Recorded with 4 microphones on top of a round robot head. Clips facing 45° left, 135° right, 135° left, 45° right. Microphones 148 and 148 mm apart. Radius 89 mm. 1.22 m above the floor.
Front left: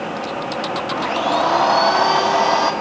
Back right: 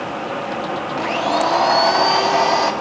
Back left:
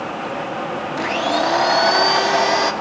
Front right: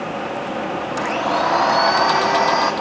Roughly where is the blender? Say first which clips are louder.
Even, back left 1 dB; behind left.